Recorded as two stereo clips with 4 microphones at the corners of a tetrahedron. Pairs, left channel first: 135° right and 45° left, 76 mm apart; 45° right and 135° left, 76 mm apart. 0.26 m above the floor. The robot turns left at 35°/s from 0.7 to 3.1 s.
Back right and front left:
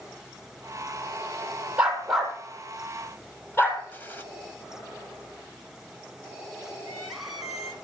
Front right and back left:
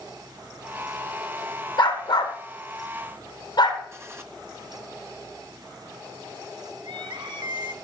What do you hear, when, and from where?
1.8 s a dog barking: 30° right, 3 m; by 3.8 s 80° right, 3 m
3.9 s a gunshot: 170° left, 1.6 m
6.8 s crying: 130° left, 2 m